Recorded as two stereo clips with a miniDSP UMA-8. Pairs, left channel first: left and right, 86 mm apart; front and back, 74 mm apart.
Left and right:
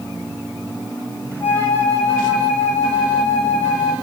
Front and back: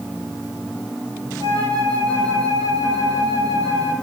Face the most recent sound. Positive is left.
turn(degrees=150)